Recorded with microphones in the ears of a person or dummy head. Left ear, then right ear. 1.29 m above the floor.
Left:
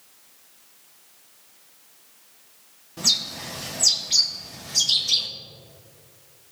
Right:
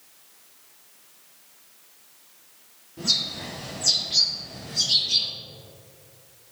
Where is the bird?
50° left (ahead or behind), 1.4 m.